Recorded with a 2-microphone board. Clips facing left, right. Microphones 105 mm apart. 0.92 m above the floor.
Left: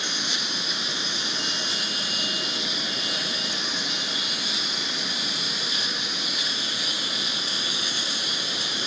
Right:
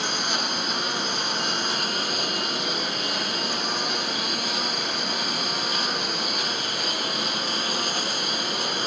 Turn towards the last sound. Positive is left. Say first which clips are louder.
# right 5 dB
turn(degrees=-50)  # may be behind; listen again after turning